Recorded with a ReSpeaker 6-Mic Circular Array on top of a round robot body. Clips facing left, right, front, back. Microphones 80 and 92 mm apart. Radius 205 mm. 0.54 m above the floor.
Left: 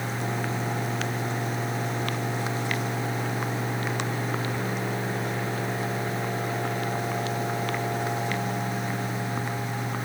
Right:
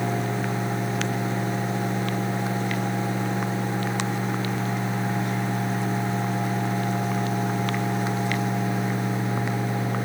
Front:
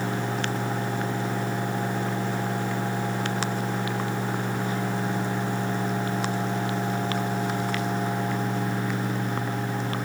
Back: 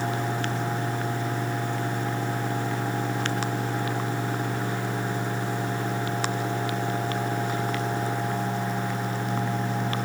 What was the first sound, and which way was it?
Only background noise.